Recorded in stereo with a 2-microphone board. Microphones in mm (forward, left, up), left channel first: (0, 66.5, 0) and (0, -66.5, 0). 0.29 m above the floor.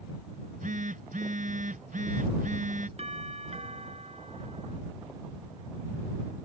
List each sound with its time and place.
0.3 s a phone buzzing: 80° right
3.0 s a doorbell: 55° right (ahead or behind)